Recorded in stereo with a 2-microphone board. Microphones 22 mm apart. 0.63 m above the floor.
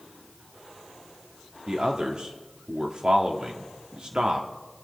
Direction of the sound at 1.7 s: 45° right (ahead or behind).